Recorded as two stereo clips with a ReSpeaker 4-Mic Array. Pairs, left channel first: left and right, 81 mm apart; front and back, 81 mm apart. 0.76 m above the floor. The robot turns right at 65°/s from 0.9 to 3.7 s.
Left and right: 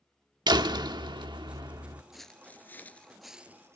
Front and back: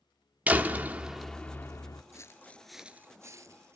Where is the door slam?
110° right, 1.3 m; by 2.0 s 40° right, 1.3 m.